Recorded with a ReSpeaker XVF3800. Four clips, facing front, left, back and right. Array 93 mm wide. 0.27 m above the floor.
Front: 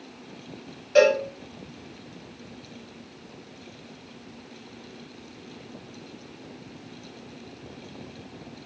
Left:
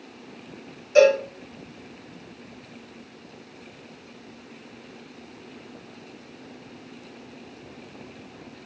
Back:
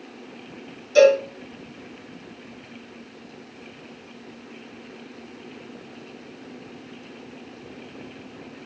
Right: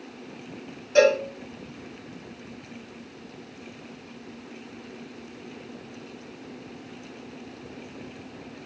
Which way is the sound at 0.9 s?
5° left.